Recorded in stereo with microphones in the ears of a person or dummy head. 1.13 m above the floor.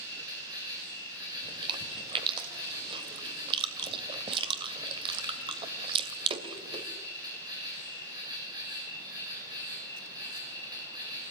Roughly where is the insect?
Right.